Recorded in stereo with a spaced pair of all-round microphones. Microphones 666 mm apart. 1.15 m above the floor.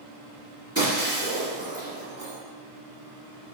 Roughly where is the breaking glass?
Right.